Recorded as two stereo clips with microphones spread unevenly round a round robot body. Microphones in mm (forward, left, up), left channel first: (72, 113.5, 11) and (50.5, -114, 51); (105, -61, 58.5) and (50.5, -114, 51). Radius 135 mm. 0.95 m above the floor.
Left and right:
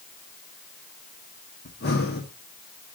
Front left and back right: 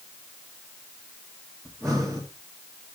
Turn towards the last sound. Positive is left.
turn(degrees=135)